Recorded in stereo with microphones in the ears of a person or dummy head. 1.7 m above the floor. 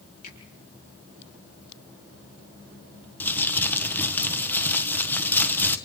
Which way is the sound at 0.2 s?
45° left (ahead or behind).